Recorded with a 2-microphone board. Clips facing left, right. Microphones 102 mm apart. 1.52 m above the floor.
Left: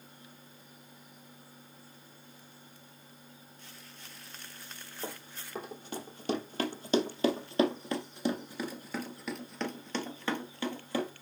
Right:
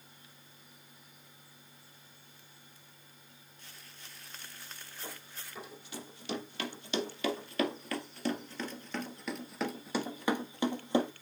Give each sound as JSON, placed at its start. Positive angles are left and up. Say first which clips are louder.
{"t": 5.0, "sound": "running footsteps", "louder": "left 6 dB", "side_deg": 60, "distance_m": 3.0}